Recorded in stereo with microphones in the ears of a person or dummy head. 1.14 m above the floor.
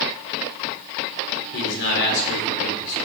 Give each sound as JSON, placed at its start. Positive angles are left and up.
{"t": 1.5, "sound": "a man speaking", "side_deg": 65, "distance_m": 3.5}